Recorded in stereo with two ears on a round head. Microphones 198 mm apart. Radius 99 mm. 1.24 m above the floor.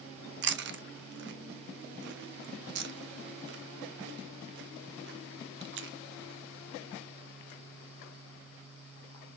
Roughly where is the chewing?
Right.